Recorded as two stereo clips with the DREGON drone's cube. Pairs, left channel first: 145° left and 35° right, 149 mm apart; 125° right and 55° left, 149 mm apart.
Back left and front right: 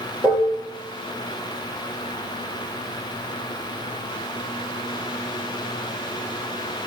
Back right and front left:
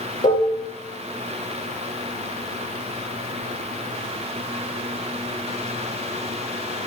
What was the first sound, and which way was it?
Dishes clattering, 120° right.